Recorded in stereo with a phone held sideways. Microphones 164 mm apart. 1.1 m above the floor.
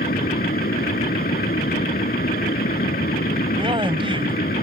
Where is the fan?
65° left (ahead or behind).